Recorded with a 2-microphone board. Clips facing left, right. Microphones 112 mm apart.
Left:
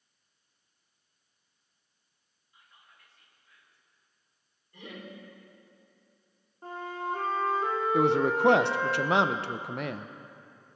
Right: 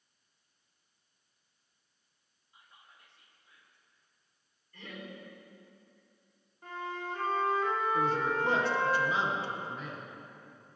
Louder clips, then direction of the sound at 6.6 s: Left 4 dB; 35° left (ahead or behind).